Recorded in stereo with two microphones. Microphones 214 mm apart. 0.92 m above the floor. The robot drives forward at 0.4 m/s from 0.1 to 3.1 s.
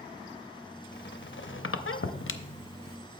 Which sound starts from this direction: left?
A squeak, at 0.9 s.